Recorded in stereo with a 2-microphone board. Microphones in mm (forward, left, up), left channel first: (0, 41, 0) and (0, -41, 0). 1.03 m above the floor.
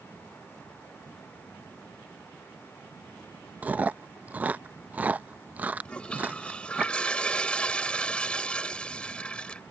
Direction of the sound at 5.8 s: 15° left (ahead or behind).